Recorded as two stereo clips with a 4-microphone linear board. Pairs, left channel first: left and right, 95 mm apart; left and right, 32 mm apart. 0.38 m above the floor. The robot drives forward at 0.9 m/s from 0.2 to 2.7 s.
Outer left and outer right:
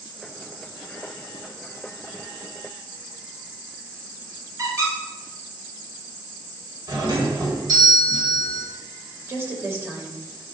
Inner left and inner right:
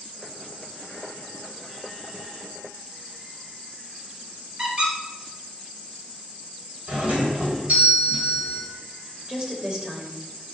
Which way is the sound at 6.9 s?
50° right (ahead or behind).